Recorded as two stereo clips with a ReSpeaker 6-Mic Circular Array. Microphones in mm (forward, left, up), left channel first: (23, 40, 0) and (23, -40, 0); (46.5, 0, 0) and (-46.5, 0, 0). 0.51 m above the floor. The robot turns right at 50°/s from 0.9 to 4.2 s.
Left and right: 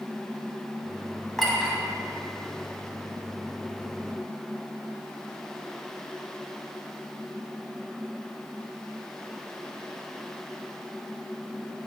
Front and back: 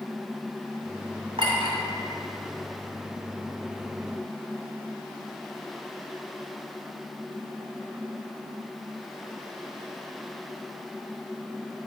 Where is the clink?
175° left, 1.9 m; by 1.8 s 165° right, 1.9 m.